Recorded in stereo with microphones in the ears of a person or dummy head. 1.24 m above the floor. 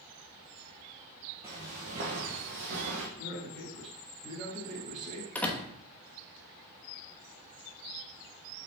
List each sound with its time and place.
1.4 s footsteps: 15° right (ahead or behind), 1.5 m; by 3.1 s 60° right (ahead or behind), 2.5 m
3.2 s a man speaking: 45° right (ahead or behind), 3 m
5.3 s a door slam: 5° left (ahead or behind), 1.0 m